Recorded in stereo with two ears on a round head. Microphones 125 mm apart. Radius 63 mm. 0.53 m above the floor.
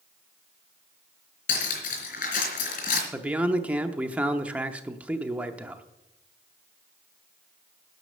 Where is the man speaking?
10° right (ahead or behind), 0.7 m.